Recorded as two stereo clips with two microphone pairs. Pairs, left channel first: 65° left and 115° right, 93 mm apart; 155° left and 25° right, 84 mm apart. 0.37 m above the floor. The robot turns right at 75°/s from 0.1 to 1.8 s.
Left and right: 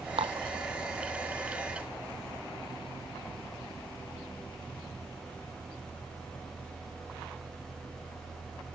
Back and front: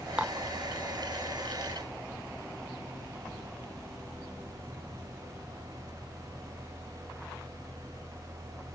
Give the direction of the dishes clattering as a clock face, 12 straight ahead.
3 o'clock.